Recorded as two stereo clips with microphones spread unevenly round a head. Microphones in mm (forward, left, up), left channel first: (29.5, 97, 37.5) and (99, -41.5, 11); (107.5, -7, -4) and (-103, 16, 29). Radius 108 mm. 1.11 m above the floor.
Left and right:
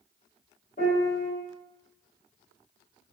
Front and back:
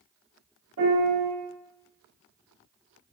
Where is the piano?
165° left, 1.0 m.